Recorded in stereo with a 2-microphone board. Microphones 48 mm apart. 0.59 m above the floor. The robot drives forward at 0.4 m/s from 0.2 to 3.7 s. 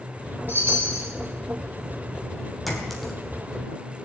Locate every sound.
0.5 s a chime: 40° right (ahead or behind), 5 m; by 1.1 s 45° right (ahead or behind), 5 m
2.7 s a clink: 5° left (ahead or behind), 3 m